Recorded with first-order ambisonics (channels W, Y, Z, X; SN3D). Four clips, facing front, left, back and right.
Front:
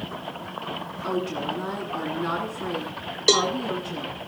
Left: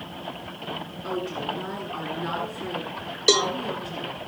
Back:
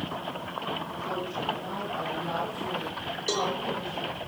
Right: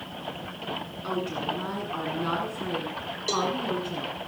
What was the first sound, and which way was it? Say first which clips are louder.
A woman speaking: even, front 5 dB; 35° right.